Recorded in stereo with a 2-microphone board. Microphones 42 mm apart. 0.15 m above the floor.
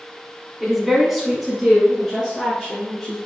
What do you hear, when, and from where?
0.6 s a woman speaking: 5° right (ahead or behind), 1.1 m; by 3.2 s centre (ahead or behind), 2.5 m